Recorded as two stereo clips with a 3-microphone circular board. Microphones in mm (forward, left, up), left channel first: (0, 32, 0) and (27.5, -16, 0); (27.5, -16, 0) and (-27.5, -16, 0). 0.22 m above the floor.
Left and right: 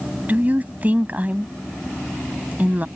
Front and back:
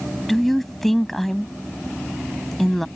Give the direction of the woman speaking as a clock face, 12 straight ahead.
3 o'clock.